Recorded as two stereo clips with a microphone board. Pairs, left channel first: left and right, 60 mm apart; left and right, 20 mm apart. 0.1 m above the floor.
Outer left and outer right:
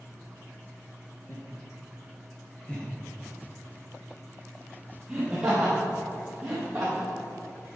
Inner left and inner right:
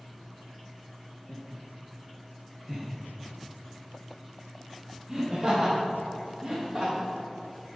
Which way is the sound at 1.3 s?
35° left (ahead or behind).